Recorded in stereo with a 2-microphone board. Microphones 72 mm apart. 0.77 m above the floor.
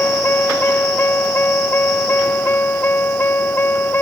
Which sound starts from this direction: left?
A vehicle, at 0.0 s.